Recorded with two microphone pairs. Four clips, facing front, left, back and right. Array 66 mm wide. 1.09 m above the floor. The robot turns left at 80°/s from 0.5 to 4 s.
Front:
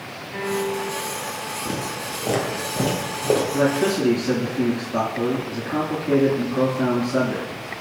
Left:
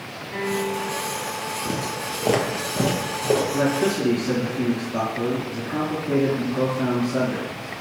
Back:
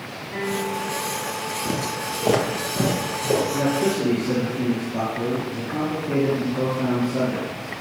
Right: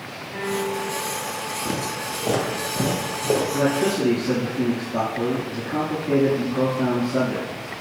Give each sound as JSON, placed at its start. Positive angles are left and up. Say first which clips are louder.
{"t": 0.3, "sound": "a piano", "louder": "even, front 1 dB", "azimuth_deg": 135, "distance_m": 4.0}
{"t": 1.6, "sound": "footsteps", "louder": "right 1 dB, back 2 dB", "azimuth_deg": -115, "distance_m": 1.1}
{"t": 3.5, "sound": "a man speaking", "louder": "even, front 2 dB", "azimuth_deg": 45, "distance_m": 2.5}